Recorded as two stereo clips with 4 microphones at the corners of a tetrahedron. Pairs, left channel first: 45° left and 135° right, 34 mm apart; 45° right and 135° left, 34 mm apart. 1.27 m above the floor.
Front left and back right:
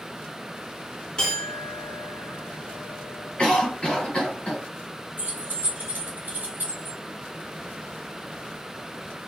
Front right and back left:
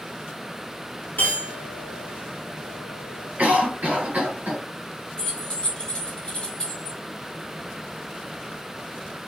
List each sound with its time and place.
1.2 s a clink: 20° right, 0.7 m
3.4 s a cough: 105° left, 1.6 m
5.2 s keys jangling: 105° right, 1.2 m